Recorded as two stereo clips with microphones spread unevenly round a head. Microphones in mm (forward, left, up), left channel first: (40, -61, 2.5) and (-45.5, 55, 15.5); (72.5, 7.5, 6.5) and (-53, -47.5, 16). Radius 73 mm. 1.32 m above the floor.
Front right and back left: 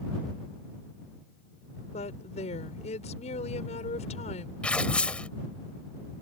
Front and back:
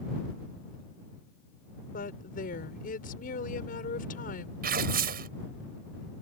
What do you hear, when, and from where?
1.9 s a woman speaking: 5° right
4.6 s tearing paper: 135° right